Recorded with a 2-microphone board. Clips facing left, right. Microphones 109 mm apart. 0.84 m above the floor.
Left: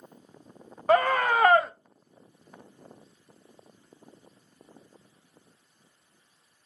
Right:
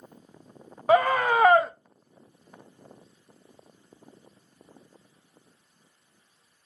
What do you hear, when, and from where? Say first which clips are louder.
0.9 s a scream: right 1 dB; 5° right (ahead or behind), 0.6 m